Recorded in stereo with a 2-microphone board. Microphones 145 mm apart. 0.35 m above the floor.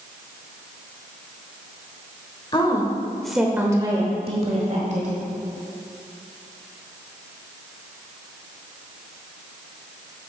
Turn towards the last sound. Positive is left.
turn(degrees=-60)  # may be behind; listen again after turning